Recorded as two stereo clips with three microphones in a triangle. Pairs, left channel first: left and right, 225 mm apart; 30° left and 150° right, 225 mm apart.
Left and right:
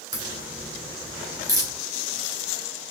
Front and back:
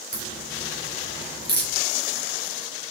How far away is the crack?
About 3.5 m.